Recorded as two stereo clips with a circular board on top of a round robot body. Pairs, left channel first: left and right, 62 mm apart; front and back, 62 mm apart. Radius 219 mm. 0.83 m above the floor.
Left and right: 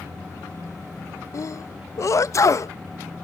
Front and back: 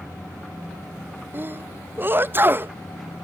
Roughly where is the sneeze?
Behind left.